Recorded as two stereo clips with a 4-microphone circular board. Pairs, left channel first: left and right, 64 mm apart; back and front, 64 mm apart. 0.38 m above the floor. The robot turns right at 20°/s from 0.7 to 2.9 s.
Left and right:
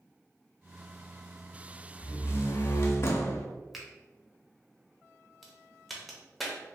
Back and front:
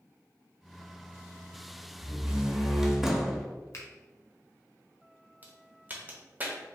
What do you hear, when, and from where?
2.0 s a door slam: 65° left, 0.7 m; by 3.5 s 85° left, 0.7 m
3.7 s a finger snap: straight behind, 0.9 m
5.4 s a crack: straight ahead, 0.8 m